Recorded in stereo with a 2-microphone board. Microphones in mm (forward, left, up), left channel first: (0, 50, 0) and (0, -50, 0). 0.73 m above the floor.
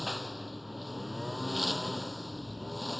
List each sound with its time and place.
0.0 s a lawn mower: centre (ahead or behind)